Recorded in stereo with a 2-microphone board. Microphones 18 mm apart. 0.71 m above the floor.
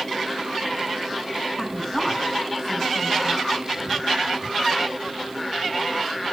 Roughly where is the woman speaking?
Left.